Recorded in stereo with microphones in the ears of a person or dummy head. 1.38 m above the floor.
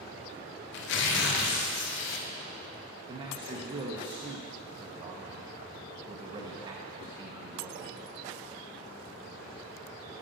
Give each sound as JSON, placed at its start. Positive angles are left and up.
{"t": 0.7, "sound": "tearing paper", "side_deg": 65, "distance_m": 0.9}
{"t": 3.1, "sound": "a man speaking", "side_deg": -30, "distance_m": 0.9}